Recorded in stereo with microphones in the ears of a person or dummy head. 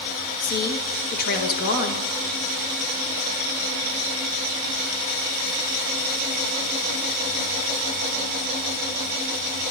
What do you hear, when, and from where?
0.4 s a woman speaking: 50° left (ahead or behind), 1.1 m